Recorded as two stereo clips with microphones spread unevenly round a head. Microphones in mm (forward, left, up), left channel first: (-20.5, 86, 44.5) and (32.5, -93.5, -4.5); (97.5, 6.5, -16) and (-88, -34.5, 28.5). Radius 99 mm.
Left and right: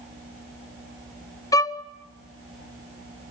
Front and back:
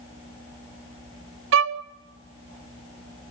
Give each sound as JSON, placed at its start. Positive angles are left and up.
{"t": 1.5, "sound": "a violin", "azimuth_deg": 175, "distance_m": 0.6}